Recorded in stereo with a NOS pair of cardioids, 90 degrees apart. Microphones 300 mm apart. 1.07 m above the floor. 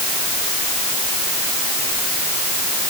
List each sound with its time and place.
Only background noise.